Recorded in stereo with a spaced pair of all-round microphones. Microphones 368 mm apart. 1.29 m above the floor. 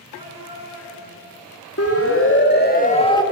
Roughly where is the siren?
Left.